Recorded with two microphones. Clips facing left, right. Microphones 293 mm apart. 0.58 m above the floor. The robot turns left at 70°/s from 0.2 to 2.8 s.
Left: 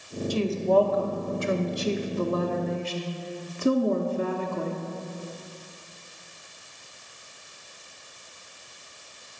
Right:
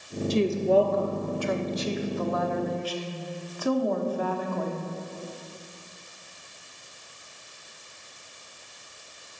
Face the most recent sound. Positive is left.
turn(degrees=45)